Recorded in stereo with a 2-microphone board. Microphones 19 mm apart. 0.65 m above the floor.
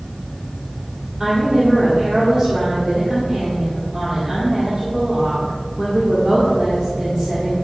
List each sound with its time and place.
1.2 s a woman speaking: 15° right (ahead or behind), 2 m